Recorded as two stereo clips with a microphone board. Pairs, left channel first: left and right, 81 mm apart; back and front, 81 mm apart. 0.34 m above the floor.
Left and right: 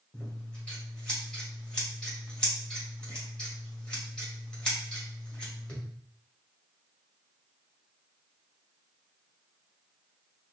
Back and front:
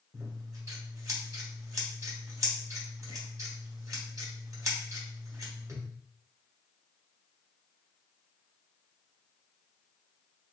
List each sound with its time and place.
0.1 s scissors: 15° left, 1.6 m